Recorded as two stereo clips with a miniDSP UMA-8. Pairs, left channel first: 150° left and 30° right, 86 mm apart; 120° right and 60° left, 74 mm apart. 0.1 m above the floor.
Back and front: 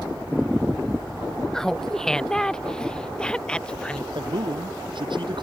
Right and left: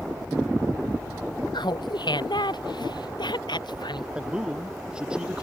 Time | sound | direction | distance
1.5 | laughter | 125° right | ?
4.2 | a man speaking | 20° right | ?